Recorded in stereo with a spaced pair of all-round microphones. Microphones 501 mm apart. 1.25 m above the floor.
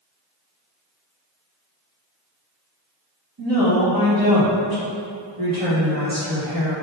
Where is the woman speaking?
40° right (ahead or behind), 1.5 m.